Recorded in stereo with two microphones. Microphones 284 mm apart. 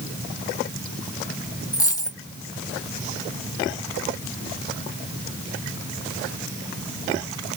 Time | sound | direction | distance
1.7 | a dropped coin | 10° left (ahead or behind) | 1.1 m